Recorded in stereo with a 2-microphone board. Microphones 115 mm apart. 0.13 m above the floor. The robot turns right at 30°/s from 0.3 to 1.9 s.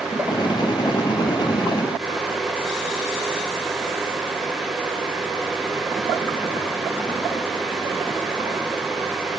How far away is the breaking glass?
No breaking glass in this recording.